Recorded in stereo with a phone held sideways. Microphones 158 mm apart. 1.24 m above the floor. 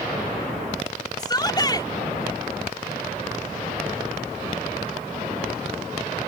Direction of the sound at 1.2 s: 25° left (ahead or behind).